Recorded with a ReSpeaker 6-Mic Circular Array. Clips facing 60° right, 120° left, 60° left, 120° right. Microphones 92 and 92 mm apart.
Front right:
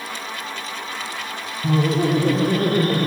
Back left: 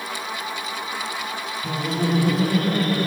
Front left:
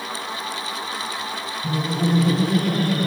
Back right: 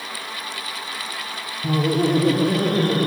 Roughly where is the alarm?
I don't hear an alarm.